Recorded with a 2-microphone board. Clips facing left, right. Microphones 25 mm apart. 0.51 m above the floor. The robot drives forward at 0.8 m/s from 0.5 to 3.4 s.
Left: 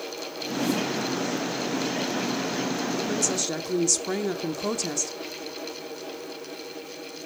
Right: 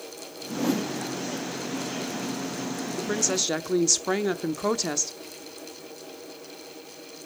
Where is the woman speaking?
20° right (ahead or behind), 0.8 m.